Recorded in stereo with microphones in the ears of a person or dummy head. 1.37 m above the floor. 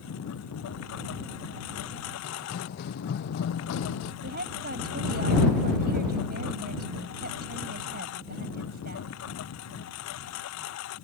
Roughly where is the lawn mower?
Left.